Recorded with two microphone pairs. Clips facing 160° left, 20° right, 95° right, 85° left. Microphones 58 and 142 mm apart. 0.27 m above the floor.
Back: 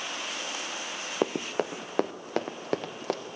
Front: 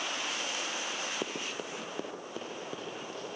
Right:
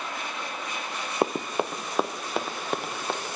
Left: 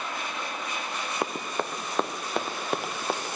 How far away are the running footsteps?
About 1.0 m.